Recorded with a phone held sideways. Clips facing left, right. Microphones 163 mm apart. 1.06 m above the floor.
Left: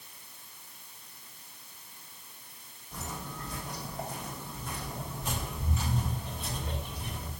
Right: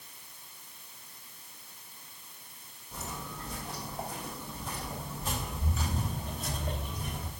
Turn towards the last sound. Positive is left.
turn(degrees=-50)  # may be behind; listen again after turning